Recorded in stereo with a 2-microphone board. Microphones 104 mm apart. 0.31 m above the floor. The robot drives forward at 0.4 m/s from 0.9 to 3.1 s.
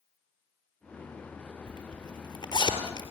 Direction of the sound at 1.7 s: 40° left (ahead or behind).